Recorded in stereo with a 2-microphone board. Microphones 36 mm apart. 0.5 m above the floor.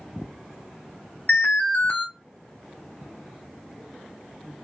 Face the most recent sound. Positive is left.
turn(degrees=60)  # may be behind; listen again after turning